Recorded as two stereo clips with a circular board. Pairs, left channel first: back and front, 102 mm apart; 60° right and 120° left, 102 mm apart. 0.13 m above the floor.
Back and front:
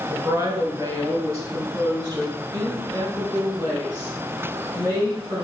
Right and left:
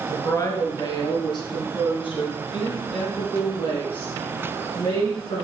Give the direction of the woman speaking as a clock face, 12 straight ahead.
1 o'clock.